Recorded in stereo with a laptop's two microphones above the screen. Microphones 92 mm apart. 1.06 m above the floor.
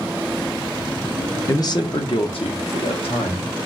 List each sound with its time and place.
1.5 s a man speaking: 35° left (ahead or behind), 0.5 m; by 3.6 s 85° left, 1.4 m